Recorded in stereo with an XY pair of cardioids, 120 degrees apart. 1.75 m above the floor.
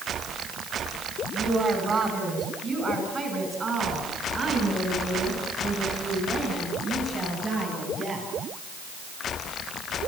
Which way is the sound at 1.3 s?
40° right.